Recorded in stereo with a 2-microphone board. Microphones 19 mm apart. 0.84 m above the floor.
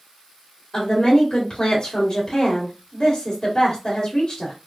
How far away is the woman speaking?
About 1.8 m.